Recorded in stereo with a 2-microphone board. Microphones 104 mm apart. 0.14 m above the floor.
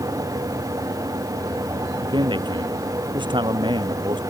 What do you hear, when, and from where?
2.0 s a man speaking: 45° right (ahead or behind)